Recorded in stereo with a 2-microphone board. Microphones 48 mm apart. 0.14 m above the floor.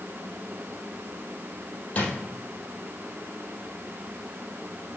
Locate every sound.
1.9 s a drawer: 30° left (ahead or behind), 2.5 m